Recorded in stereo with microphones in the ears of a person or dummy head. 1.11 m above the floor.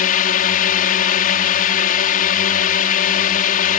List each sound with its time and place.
0.0 s a drone: 40° left (ahead or behind)